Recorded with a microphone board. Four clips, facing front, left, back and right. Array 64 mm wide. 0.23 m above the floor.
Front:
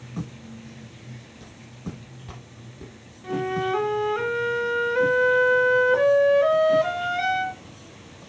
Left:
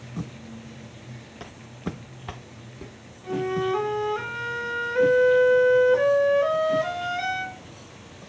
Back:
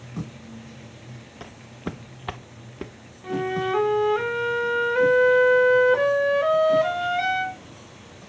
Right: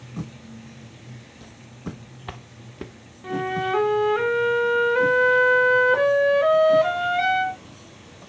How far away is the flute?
About 0.6 m.